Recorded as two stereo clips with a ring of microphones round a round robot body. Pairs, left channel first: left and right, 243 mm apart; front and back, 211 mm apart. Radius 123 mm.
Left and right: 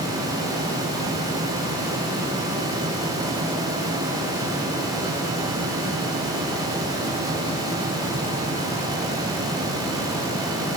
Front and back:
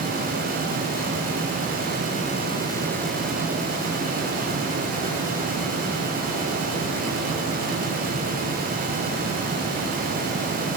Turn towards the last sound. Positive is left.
No sound to turn to.